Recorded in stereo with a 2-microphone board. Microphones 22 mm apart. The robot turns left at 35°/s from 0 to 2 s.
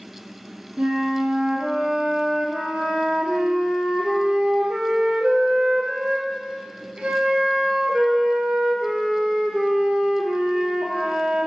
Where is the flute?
55° right, 0.6 m; by 11.5 s 100° right, 0.6 m.